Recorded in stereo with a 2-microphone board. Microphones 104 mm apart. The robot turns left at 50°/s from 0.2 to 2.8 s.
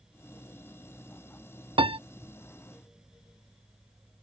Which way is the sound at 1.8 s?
55° right (ahead or behind).